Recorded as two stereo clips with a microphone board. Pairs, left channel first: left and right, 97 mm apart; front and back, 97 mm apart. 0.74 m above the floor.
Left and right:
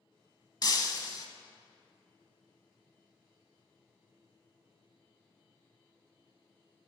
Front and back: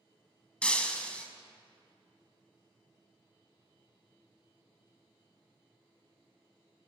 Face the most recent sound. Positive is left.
turn(degrees=75)